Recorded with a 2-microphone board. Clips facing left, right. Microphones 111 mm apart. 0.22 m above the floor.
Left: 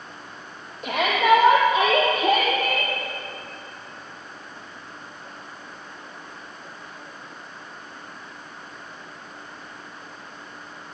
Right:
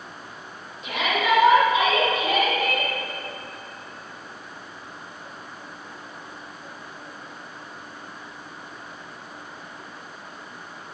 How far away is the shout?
About 6 m.